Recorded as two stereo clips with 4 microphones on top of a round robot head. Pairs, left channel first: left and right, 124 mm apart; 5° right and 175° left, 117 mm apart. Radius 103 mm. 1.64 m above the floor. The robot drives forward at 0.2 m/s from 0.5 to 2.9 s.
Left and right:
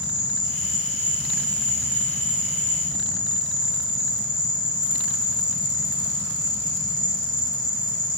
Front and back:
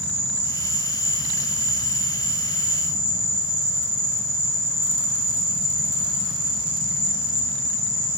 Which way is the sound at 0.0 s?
30° left.